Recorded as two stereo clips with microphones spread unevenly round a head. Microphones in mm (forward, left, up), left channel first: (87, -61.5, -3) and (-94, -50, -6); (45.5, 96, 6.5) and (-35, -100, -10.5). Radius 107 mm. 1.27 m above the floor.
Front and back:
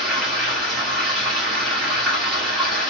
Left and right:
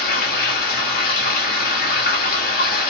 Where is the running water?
85° left, 0.9 m.